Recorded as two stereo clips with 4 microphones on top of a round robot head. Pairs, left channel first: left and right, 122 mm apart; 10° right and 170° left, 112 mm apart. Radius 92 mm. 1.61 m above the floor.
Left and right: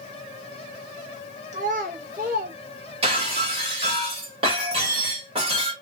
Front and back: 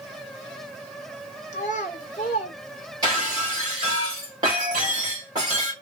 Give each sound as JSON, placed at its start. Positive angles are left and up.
{"t": 1.5, "sound": "a child speaking", "azimuth_deg": -45, "distance_m": 1.2}
{"t": 3.0, "sound": "breaking glass", "azimuth_deg": -125, "distance_m": 2.0}